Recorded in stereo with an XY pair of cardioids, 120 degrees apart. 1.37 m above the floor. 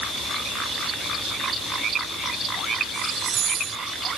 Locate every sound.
Only background noise.